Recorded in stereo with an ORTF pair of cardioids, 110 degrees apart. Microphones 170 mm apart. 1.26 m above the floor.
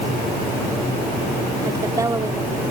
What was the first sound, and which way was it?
A woman speaking, 20° right.